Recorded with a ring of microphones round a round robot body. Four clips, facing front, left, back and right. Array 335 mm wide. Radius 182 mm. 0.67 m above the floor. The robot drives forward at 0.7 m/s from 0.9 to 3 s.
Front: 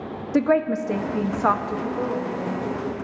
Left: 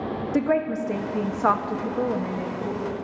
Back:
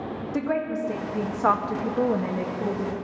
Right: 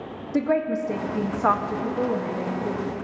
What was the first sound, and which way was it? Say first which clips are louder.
A woman speaking: right 1 dB, front 7 dB; 5° left.